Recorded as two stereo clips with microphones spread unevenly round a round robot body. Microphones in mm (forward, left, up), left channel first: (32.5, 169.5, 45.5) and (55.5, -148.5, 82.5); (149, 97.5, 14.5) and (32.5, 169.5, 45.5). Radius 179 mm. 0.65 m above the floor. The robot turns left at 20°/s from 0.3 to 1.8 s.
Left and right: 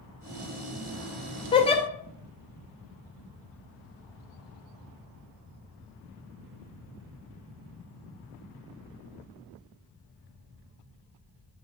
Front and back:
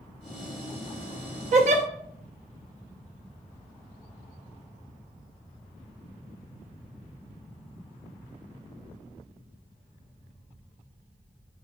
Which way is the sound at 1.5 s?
155° left.